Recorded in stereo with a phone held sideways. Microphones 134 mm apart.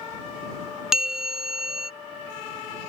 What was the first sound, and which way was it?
A bell, 5° right (ahead or behind).